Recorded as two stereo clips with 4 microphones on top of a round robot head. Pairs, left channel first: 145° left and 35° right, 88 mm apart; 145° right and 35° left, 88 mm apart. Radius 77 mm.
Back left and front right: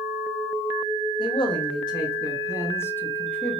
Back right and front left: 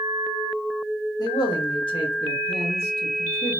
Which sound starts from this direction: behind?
A man speaking, at 1.2 s.